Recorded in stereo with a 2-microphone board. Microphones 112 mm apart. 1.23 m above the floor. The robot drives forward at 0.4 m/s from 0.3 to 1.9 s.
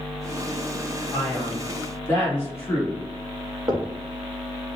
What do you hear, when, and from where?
1.1 s a man speaking: 15° left (ahead or behind), 1.3 m; by 3.0 s 10° left (ahead or behind), 1.5 m
3.7 s knocking: 35° right (ahead or behind), 0.6 m